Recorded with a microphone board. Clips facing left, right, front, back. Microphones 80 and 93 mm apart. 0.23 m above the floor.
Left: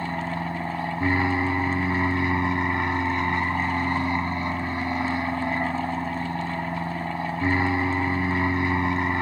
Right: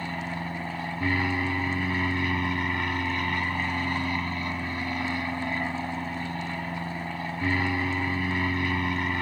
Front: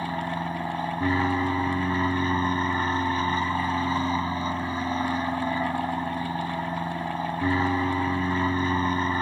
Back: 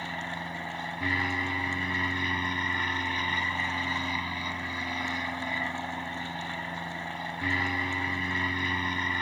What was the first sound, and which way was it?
An aircraft, 35° left.